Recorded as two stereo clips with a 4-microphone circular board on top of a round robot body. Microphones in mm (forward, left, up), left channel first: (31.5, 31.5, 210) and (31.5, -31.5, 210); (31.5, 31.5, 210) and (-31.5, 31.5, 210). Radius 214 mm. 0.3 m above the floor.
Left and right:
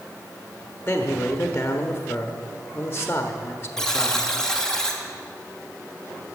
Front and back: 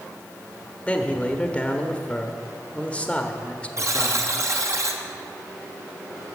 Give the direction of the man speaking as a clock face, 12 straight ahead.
10 o'clock.